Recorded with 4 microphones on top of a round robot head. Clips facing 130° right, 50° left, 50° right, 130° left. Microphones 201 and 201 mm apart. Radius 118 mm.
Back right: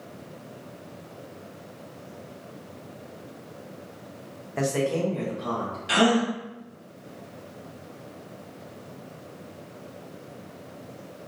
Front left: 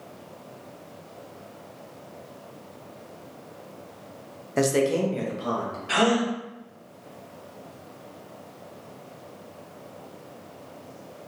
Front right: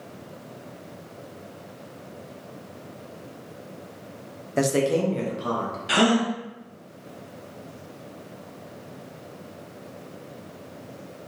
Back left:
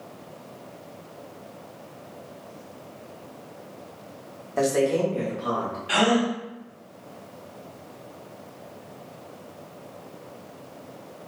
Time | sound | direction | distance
4.6 | a man speaking | 10° left | 0.6 m
5.9 | a gasp | 85° right | 0.8 m